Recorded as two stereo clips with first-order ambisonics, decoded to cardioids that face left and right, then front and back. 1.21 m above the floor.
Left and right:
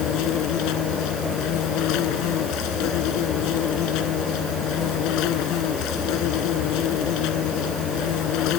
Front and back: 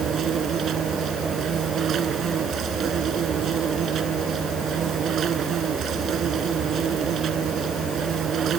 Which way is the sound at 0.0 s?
120° left.